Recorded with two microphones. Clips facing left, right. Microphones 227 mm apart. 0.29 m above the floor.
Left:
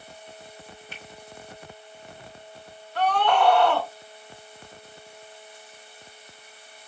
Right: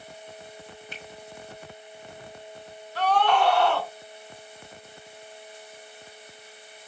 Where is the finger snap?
15° right (ahead or behind), 1.9 m.